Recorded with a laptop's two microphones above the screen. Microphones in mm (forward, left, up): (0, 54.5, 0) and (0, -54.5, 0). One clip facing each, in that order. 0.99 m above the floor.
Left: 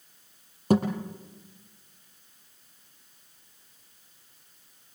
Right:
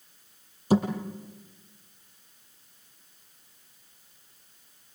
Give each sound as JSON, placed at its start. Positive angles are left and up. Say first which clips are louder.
{"t": 0.7, "sound": "a thud", "louder": "even", "side_deg": 50, "distance_m": 7.0}